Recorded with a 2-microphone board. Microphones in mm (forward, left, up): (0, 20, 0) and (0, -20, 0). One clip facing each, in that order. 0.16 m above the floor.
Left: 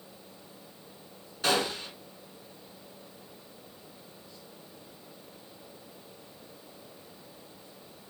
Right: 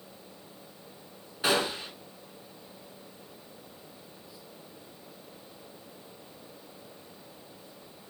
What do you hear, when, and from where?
1.4 s a gunshot: 20° right (ahead or behind), 0.6 m